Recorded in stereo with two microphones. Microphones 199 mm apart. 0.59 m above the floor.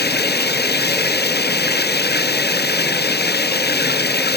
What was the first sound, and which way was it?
Running water, 55° left (ahead or behind).